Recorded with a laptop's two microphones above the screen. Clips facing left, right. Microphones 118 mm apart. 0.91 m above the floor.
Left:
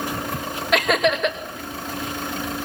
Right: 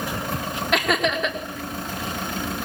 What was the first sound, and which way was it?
Laughter, centre (ahead or behind).